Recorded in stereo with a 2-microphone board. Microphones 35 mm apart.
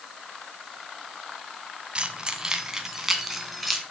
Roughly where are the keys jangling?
Right.